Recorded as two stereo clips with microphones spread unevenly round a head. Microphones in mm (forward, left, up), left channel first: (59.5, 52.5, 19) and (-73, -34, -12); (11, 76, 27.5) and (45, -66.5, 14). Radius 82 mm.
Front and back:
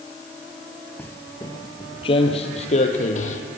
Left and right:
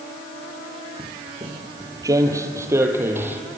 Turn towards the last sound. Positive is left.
turn(degrees=0)